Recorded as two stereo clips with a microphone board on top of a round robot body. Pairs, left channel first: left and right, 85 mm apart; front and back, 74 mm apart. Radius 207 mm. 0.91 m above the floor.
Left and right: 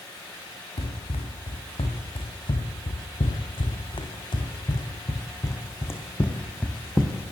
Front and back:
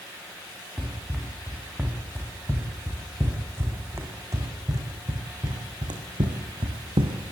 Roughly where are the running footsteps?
Left.